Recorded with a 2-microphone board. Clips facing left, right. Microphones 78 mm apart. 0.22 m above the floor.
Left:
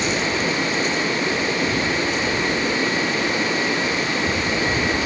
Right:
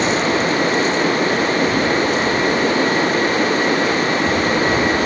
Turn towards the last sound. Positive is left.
No sound to turn to.